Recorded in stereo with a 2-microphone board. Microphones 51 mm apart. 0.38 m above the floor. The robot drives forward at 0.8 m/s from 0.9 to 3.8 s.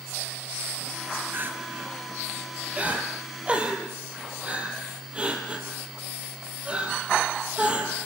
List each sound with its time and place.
1.3 s crying: 40° right (ahead or behind), 2 m; by 8.0 s 20° right (ahead or behind), 4 m